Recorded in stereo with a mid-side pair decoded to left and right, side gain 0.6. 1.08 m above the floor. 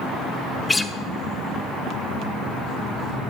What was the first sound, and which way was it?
A guitar, 15° left.